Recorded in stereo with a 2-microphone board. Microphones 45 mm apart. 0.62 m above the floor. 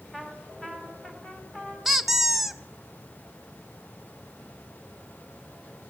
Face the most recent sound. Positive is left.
turn(degrees=-5)  # may be behind; listen again after turning